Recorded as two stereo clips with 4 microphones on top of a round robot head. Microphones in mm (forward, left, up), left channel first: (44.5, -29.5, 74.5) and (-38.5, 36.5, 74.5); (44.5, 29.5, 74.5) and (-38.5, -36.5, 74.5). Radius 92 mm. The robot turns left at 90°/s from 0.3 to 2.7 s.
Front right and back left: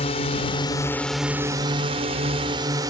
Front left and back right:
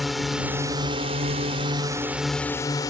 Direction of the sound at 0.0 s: 50° right.